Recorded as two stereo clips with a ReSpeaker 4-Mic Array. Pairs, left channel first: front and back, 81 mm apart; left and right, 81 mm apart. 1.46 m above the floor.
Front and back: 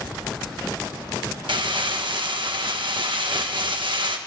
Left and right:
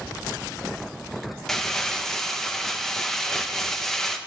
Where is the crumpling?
175° left, 1.2 m.